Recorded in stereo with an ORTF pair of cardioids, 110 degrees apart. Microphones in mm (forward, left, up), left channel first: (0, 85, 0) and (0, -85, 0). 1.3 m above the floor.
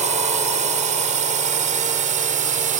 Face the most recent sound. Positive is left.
turn(degrees=-50)